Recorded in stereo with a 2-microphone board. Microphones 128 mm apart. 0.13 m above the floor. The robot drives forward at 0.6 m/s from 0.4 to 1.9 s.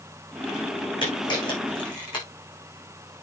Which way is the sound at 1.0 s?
40° left (ahead or behind).